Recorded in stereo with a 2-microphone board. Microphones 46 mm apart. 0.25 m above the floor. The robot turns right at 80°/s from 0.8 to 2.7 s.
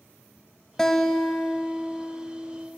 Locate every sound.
0.8 s a guitar: 10° left (ahead or behind), 0.7 m; by 2.7 s 20° right (ahead or behind), 0.7 m